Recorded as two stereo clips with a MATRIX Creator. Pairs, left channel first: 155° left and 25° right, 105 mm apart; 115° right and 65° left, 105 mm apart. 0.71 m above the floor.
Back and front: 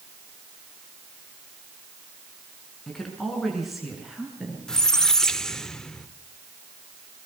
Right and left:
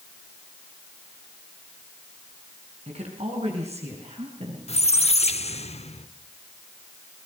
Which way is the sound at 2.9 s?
70° left.